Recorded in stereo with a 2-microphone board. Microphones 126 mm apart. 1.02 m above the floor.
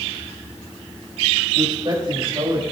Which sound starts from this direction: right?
A man speaking, at 1.6 s.